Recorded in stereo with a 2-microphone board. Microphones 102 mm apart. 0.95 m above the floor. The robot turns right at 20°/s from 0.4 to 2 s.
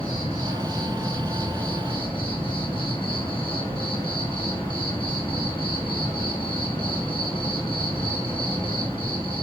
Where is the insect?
85° left, 2 m; by 9.4 s 120° left, 2 m.